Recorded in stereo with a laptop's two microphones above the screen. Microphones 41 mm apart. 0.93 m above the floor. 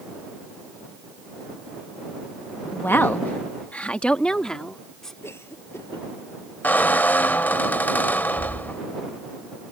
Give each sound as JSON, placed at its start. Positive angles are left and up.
{"t": 2.7, "sound": "a woman speaking", "side_deg": 60}
{"t": 5.2, "sound": "a cough", "side_deg": 90}
{"t": 6.6, "sound": "a squeak", "side_deg": 50}